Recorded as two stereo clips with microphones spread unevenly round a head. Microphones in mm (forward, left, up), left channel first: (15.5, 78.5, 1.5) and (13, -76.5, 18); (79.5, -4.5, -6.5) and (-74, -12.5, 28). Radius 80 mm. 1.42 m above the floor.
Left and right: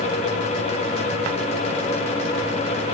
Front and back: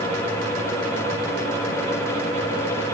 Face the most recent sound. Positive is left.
No sound to turn to.